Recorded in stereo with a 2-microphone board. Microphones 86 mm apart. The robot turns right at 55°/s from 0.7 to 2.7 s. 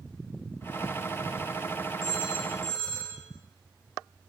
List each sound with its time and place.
2.0 s a phone ringing: 140° left, 8 m; by 3.2 s 175° left, 8 m